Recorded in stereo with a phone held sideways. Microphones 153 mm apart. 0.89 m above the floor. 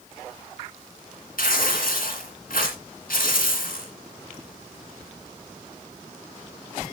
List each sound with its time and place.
1.4 s tearing paper: 75° left (ahead or behind), 2.5 m